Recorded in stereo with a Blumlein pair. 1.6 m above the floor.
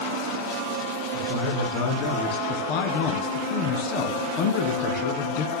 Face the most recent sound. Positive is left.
turn(degrees=45)